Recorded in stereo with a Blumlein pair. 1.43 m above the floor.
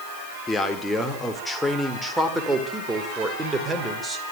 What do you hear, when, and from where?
0.5 s a man speaking: 10° left, 3.5 m; by 4.3 s 15° right, 5 m